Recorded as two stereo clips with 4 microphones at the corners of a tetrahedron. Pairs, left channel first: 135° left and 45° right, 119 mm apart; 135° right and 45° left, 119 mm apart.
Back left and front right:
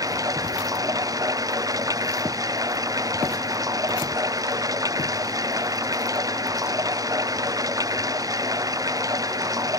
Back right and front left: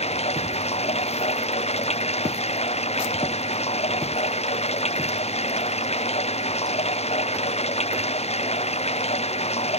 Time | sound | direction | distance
0.0 | running water | 105° right | ?